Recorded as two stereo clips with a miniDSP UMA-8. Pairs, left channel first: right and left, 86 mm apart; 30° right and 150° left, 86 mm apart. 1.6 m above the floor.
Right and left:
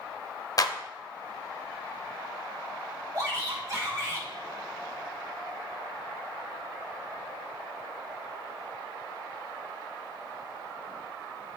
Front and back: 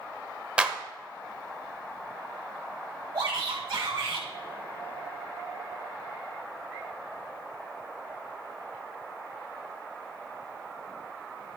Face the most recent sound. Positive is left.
turn(degrees=135)